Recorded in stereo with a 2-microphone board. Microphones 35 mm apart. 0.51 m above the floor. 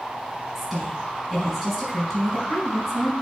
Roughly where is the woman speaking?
Centre.